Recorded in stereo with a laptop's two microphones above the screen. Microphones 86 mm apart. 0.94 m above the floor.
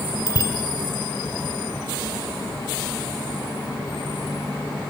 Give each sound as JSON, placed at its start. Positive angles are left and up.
{"t": 0.3, "sound": "a bicycle bell", "side_deg": 55, "distance_m": 2.5}